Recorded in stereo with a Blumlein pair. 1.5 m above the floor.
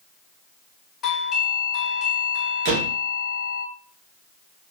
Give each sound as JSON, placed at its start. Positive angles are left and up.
{"t": 1.0, "sound": "a doorbell", "azimuth_deg": 30, "distance_m": 0.9}
{"t": 2.6, "sound": "a door slam", "azimuth_deg": -45, "distance_m": 1.1}